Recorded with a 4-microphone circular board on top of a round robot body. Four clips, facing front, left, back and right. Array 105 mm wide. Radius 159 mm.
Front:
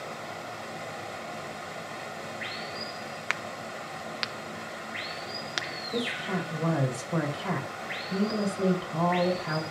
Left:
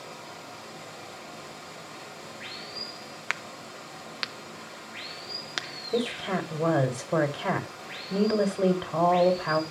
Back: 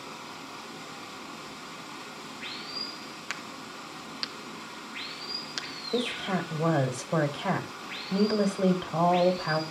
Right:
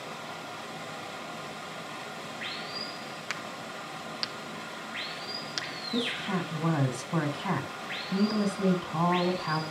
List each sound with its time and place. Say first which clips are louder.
0.0 s running water: right 3 dB, front 4 dB; 5° right, 2.0 m
3.3 s a crack: left 3 dB, front 6 dB; 40° left, 0.9 m
5.9 s a woman speaking: left 4 dB, back 2 dB; 100° left, 3 m